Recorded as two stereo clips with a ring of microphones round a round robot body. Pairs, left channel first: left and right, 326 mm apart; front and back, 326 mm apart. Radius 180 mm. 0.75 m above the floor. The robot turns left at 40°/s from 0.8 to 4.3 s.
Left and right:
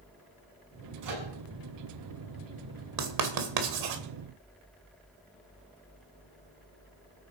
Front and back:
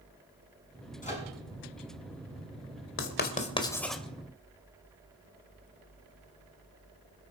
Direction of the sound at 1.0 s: 65° right.